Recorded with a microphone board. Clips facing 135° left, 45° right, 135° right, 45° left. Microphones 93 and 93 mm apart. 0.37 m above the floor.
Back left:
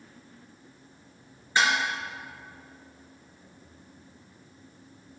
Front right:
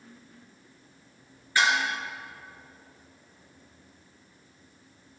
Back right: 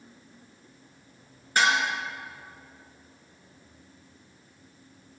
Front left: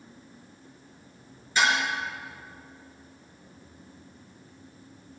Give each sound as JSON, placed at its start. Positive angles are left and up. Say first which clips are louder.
{"t": 1.6, "sound": "dishes clattering", "louder": "even, back right 1 dB", "azimuth_deg": -160, "distance_m": 4.0}